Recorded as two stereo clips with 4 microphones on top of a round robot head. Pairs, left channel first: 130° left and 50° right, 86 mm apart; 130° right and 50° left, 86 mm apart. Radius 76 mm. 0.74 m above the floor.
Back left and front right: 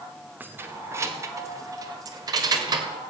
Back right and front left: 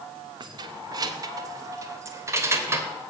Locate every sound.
0.4 s keys jangling: 20° left, 1.4 m; by 2.9 s 10° right, 2.5 m